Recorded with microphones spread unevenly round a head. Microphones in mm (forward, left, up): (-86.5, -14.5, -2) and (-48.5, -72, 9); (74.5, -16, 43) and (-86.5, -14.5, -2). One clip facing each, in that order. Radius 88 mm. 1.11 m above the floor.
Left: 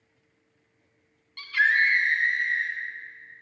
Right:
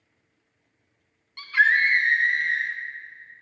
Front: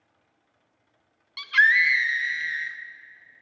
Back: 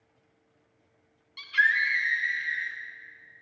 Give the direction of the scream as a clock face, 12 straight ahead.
11 o'clock.